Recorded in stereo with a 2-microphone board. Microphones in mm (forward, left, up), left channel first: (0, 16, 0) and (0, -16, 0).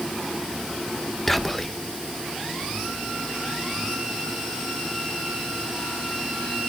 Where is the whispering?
10° left (ahead or behind), 0.5 m.